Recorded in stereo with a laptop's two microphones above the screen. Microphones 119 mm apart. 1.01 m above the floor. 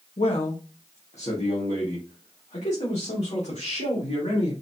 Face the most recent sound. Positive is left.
turn(degrees=80)